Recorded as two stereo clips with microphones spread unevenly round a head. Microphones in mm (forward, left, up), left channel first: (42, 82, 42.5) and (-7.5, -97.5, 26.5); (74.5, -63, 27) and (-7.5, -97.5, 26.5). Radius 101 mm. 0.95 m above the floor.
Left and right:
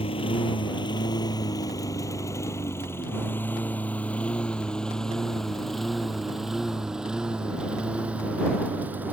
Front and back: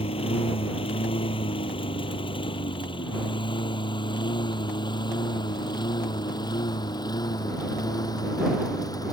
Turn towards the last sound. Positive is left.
turn(degrees=-25)